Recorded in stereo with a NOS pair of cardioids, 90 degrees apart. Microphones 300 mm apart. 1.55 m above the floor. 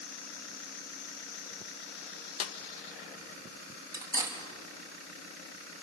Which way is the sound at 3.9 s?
10° right.